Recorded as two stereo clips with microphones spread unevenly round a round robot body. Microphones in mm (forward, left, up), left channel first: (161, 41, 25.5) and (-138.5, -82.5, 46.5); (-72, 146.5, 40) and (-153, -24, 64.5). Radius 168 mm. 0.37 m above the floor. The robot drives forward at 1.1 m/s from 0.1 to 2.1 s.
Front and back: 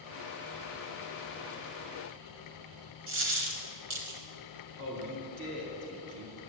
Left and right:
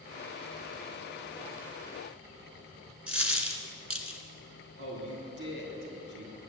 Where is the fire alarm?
I don't hear a fire alarm.